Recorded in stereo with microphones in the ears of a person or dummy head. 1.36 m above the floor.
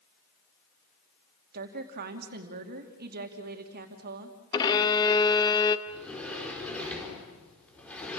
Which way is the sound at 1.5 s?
50° right (ahead or behind).